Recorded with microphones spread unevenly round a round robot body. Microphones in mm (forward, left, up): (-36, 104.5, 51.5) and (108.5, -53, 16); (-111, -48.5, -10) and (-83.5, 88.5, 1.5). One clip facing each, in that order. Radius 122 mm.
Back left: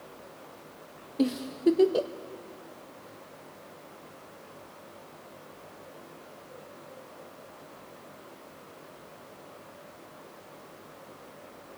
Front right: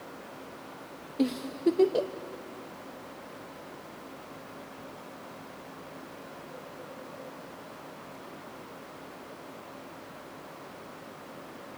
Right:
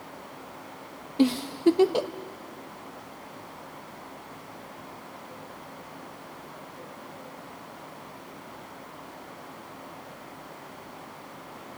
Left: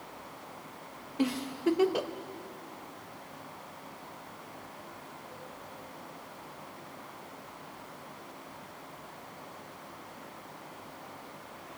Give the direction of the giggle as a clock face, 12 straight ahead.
4 o'clock.